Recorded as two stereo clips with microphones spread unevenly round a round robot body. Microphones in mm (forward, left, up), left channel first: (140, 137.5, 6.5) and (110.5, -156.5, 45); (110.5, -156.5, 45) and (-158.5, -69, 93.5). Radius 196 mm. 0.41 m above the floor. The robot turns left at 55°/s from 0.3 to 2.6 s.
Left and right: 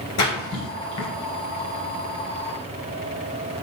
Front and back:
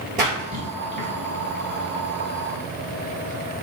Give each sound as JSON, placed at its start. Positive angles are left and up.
{"t": 0.2, "sound": "a splash", "azimuth_deg": 95, "distance_m": 2.5}